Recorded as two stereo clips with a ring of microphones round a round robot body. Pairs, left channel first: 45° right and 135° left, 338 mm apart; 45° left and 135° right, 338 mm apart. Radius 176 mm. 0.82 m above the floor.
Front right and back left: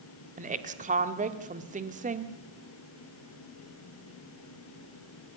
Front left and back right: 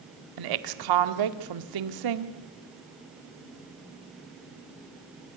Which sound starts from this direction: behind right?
A woman speaking, at 0.4 s.